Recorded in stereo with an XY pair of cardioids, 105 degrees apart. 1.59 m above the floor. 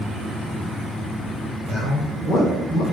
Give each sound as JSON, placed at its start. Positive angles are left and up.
{"t": 1.7, "sound": "a man speaking", "azimuth_deg": 70, "distance_m": 2.0}